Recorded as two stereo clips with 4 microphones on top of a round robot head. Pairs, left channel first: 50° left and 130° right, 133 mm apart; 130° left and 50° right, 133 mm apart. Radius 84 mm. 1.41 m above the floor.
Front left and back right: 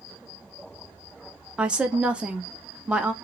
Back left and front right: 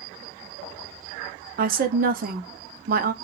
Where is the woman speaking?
50° right, 0.6 m.